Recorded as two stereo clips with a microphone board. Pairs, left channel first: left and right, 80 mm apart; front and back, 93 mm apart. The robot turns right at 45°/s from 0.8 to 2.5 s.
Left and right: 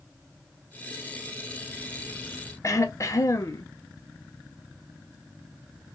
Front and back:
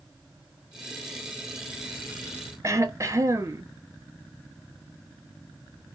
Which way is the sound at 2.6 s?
130° left.